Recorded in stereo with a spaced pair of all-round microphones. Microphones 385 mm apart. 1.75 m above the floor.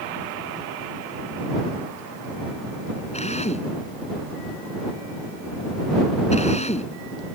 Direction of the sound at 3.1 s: 15° left (ahead or behind).